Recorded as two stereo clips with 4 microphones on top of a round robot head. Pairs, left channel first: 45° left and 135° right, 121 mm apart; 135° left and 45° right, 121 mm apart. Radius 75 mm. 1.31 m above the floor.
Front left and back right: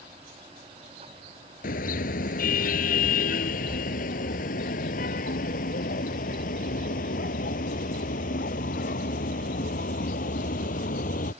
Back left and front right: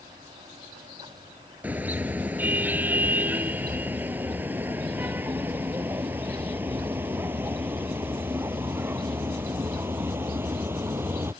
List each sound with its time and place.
1.6 s a car horn: 30° left